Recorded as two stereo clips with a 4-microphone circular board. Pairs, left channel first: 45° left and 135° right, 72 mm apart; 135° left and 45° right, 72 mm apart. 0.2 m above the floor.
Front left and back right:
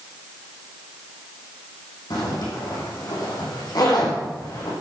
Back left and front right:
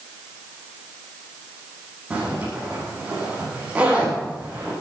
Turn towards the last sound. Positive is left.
turn(degrees=30)